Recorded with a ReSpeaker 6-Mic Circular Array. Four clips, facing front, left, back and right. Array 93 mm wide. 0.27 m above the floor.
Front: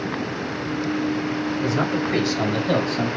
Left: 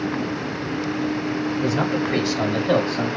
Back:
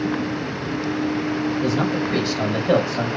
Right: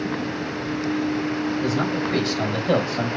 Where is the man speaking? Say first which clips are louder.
Left 1 dB, back 1 dB; 40° left, 1.3 m; by 3.2 s 155° right, 1.4 m.